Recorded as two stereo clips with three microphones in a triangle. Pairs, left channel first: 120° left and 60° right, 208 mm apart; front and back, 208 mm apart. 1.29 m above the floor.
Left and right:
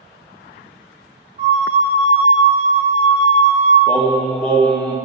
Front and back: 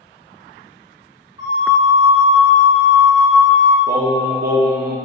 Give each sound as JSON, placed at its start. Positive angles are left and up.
{"t": 1.4, "sound": "a flute", "azimuth_deg": -110, "distance_m": 1.8}
{"t": 3.9, "sound": "singing", "azimuth_deg": -155, "distance_m": 0.6}